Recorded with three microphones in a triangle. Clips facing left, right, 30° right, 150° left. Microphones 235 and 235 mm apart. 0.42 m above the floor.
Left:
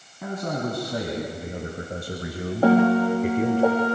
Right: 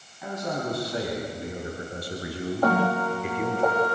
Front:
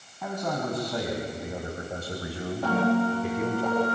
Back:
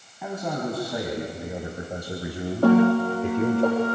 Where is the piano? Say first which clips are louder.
Left 8 dB, back 7 dB; 145° left, 4.5 m.